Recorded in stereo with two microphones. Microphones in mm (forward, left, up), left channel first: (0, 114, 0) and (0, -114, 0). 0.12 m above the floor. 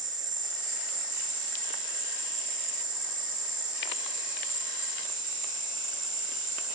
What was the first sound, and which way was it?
An insect, 35° right (ahead or behind).